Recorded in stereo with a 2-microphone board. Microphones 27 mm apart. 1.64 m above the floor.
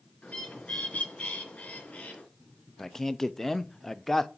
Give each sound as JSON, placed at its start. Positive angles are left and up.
{"t": 0.2, "sound": "a bird", "side_deg": 70, "distance_m": 3.5}
{"t": 2.8, "sound": "a man speaking", "side_deg": 10, "distance_m": 0.6}